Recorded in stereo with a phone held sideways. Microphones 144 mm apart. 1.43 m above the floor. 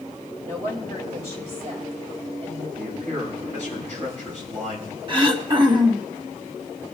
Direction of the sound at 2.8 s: 65° right (ahead or behind).